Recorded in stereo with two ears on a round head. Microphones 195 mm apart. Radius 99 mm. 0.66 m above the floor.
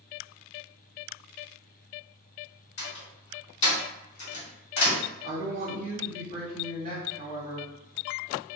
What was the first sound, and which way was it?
A door slam, 55° left (ahead or behind).